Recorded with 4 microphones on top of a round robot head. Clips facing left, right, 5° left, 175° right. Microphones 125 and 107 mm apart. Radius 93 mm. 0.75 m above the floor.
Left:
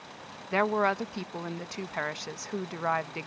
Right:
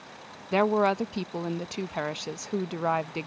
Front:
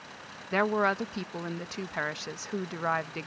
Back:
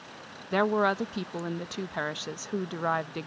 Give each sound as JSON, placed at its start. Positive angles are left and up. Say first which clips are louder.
{"t": 0.5, "sound": "a woman speaking", "louder": "right 3 dB, back 2 dB", "azimuth_deg": -115}